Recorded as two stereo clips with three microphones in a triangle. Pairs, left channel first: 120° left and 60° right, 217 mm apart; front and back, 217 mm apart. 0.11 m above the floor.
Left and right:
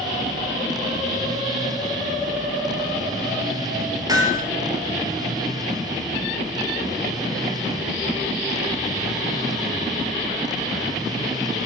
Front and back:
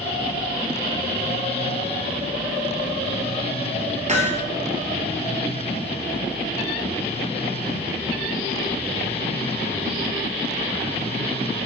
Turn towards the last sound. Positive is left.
turn(degrees=-130)